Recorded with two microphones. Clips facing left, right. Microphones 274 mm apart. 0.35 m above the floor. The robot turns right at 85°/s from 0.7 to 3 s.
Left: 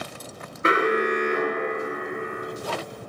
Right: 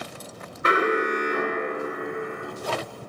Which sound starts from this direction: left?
An alarm, at 0.6 s.